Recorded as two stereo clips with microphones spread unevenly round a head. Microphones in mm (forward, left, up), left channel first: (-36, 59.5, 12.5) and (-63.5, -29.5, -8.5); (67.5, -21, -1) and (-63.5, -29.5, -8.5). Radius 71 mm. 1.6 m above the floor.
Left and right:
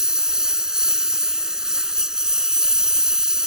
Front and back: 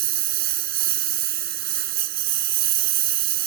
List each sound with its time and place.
0.0 s a lawn mower: 165° left